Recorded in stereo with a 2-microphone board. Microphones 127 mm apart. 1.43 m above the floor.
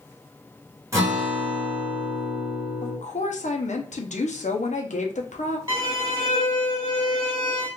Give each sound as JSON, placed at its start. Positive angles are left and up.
{"t": 0.9, "sound": "a guitar", "side_deg": -25, "distance_m": 1.3}
{"t": 2.8, "sound": "a woman speaking", "side_deg": 70, "distance_m": 0.6}
{"t": 5.7, "sound": "a violin", "side_deg": -25, "distance_m": 1.4}